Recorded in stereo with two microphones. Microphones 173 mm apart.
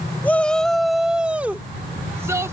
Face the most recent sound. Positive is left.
turn(degrees=-15)  # may be behind; listen again after turning